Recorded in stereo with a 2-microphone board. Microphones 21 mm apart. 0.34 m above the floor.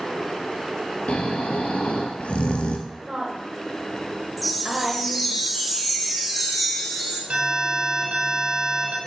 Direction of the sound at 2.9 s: 35° right (ahead or behind).